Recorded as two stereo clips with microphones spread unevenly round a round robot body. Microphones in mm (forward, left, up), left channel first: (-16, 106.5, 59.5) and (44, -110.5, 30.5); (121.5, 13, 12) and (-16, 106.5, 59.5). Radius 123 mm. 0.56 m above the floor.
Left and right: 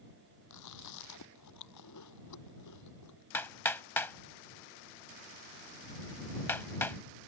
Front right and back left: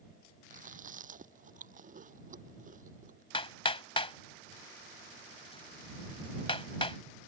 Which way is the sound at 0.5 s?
105° left.